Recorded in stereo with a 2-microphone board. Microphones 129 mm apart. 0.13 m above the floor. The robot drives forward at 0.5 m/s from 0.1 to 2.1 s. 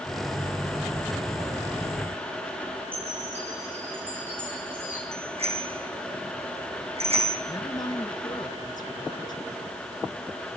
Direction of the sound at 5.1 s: 50° right (ahead or behind).